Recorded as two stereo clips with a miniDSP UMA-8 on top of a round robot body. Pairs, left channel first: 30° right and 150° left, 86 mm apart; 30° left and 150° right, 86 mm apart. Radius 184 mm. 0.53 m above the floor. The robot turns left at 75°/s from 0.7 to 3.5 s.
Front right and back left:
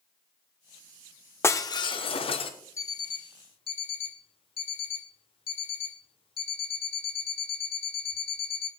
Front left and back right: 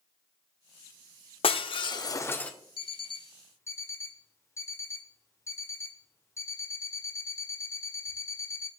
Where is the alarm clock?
25° left, 0.9 m; by 8.7 s 30° right, 0.9 m.